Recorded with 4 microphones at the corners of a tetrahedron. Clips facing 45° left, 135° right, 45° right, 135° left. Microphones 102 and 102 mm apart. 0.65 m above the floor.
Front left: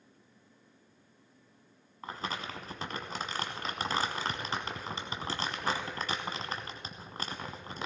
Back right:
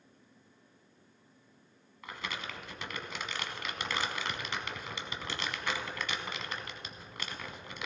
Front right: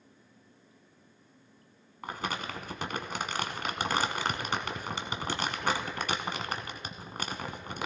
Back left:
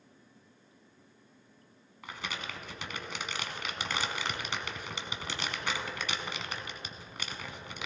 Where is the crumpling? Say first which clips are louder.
Front left 3 dB, front right 5 dB; 5° right, 1.0 m.